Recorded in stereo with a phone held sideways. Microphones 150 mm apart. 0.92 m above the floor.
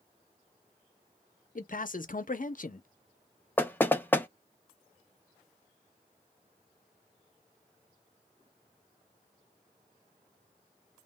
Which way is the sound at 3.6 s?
15° left (ahead or behind).